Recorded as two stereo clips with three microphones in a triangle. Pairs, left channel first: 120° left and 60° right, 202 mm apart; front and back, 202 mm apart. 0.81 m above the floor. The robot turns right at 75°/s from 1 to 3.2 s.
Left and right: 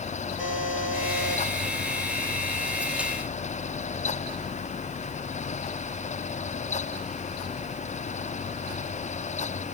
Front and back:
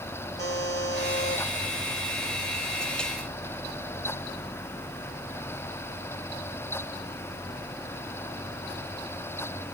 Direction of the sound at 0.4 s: 110° right.